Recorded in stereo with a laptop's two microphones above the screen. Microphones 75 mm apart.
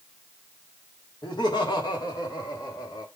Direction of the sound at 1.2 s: 75° left (ahead or behind).